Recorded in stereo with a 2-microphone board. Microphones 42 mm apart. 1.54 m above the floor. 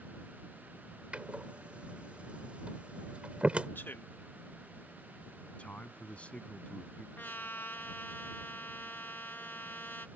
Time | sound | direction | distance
1.1 | a door slam | 30° right (ahead or behind) | ?
3.8 | a man speaking | 65° left (ahead or behind) | ?
5.5 | a man speaking | 35° left (ahead or behind) | ?
7.2 | a trumpet | 65° left (ahead or behind) | ?